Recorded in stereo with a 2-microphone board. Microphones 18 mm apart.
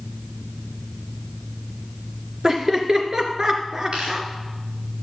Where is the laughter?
35° right (ahead or behind), 2 m.